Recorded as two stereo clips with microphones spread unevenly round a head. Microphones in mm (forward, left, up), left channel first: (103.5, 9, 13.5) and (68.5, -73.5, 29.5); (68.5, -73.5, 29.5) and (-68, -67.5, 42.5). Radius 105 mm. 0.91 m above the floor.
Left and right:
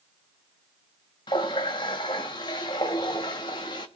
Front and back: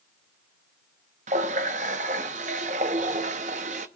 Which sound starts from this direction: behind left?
A running tap, at 1.3 s.